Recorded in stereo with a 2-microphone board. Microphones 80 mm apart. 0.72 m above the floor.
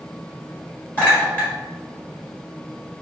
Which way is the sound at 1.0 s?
25° left (ahead or behind).